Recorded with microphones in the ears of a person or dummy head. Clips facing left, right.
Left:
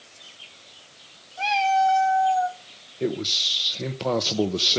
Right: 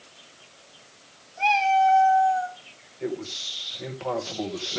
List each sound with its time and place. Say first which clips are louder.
1.4 s a cat meowing: right 1 dB; 15° left (ahead or behind), 1.7 m; by 2.6 s 35° left (ahead or behind), 1.4 m
3.0 s a man speaking: left 4 dB; 50° left (ahead or behind), 0.8 m